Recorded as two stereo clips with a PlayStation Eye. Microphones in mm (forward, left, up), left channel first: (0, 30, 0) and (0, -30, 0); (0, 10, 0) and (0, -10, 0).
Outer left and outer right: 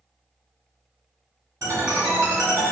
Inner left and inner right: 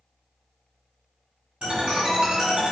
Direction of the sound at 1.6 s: 70° right (ahead or behind).